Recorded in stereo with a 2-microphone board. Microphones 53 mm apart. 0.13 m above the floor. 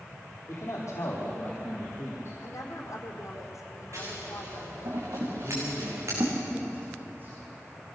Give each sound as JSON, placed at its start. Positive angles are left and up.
{"t": 0.5, "sound": "a man speaking", "side_deg": 65, "distance_m": 5.5}
{"t": 2.4, "sound": "a woman speaking", "side_deg": 75, "distance_m": 4.5}
{"t": 3.9, "sound": "scissors", "side_deg": -65, "distance_m": 5.5}
{"t": 5.4, "sound": "a man speaking", "side_deg": -35, "distance_m": 9.5}